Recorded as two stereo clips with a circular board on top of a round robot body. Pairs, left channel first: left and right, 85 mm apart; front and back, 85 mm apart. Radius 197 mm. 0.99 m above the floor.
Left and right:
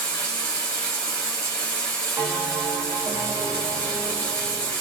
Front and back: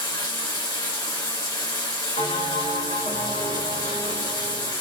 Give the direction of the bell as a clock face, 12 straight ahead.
1 o'clock.